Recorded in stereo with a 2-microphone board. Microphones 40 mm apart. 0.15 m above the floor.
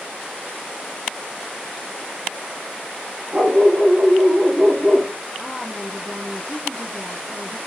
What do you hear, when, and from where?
3.3 s a dog barking: 30° right (ahead or behind), 2.0 m; by 5.1 s 20° right (ahead or behind), 0.7 m
5.4 s a woman speaking: 25° right (ahead or behind), 3 m